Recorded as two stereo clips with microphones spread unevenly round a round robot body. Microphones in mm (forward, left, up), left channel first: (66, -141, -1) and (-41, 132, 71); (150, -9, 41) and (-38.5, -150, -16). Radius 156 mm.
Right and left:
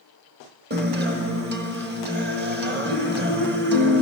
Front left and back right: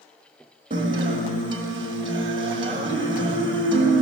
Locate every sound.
0.7 s a guitar: 170° left, 1.3 m